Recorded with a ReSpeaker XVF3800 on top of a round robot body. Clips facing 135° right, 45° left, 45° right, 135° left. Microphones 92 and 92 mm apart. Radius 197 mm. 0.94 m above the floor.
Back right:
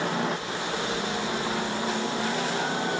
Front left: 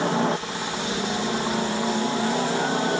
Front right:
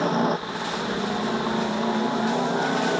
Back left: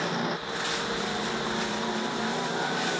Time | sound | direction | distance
0.0 | a helicopter | 10° right | ?